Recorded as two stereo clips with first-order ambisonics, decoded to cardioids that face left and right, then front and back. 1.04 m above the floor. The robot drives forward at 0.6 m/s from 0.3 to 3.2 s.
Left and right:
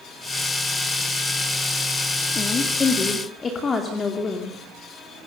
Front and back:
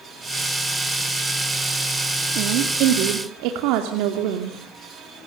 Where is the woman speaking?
155° left, 2.5 m; by 4.5 s 160° left, 3 m.